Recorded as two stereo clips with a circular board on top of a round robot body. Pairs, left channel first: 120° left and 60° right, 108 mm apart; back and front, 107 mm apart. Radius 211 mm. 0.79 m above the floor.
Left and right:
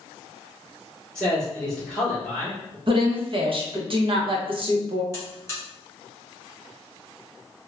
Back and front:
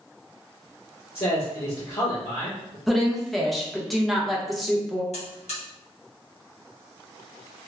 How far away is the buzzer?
About 1.5 m.